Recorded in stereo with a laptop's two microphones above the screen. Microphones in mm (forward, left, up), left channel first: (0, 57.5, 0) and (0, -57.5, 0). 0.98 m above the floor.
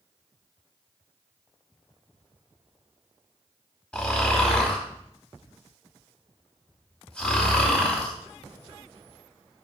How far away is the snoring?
About 1.0 m.